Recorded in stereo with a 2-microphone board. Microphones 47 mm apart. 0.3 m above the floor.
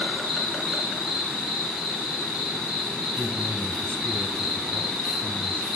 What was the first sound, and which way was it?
An insect, 5° right (ahead or behind).